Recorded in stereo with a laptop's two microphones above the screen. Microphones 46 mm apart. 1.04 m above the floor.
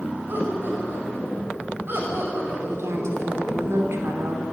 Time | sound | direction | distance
0.3 | laughter | 55° right (ahead or behind) | 7 m
2.6 | a woman speaking | 80° right | 3.5 m